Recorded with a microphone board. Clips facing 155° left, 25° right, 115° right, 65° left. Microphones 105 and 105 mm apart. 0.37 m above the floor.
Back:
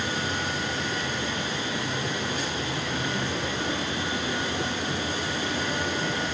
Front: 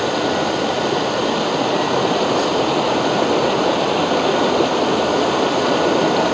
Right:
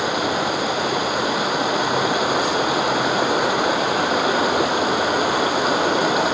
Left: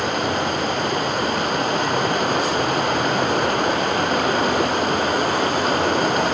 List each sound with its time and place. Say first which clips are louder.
0.0 s running water: front 12 dB, right 1 dB; 25° right